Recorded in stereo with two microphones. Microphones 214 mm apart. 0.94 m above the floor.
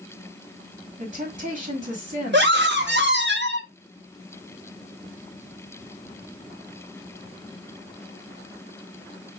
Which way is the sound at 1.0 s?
40° right (ahead or behind).